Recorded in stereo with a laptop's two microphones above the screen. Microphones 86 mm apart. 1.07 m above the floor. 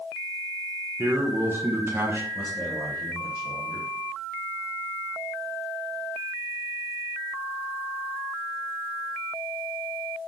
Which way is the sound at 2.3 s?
40° left (ahead or behind).